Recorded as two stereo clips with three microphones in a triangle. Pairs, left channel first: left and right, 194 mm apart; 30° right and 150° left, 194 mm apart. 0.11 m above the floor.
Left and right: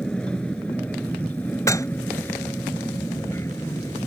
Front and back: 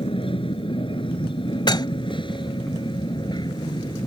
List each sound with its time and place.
0.0 s an aircraft: 10° left; by 4.1 s 25° left
1.7 s dishes clattering: 25° left